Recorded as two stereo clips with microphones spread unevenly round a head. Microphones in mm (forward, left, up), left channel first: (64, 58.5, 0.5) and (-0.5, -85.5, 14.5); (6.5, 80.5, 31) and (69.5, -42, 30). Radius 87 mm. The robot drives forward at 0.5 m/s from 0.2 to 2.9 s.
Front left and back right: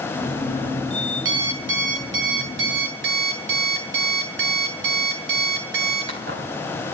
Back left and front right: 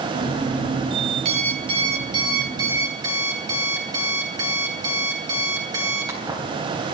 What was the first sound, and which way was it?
An alarm clock, 120° right.